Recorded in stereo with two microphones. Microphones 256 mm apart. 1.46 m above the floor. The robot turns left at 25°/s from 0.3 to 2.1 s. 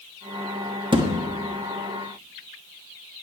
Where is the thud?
20° right (ahead or behind), 1.1 m.